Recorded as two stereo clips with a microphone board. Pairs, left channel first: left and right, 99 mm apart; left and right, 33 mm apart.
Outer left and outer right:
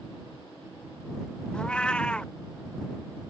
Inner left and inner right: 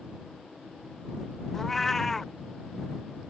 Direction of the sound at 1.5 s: 10° left (ahead or behind).